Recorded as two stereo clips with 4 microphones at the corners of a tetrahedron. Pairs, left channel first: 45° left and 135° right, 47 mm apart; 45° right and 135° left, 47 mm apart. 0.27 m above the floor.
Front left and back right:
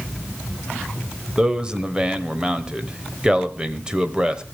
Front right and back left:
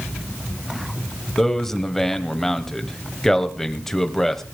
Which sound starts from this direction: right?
A man speaking, at 1.4 s.